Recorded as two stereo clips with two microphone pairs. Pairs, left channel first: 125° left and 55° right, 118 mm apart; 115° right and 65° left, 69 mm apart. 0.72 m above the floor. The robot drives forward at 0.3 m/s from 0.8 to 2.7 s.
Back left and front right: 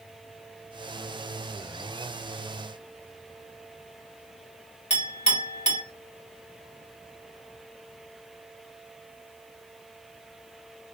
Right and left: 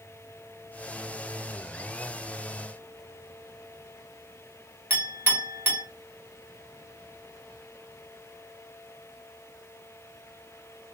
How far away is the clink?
About 1.0 m.